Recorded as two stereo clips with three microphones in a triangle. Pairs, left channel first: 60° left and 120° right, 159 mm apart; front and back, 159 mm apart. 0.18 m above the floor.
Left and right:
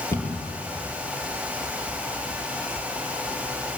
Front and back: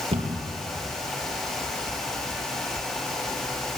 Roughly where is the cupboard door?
Behind left.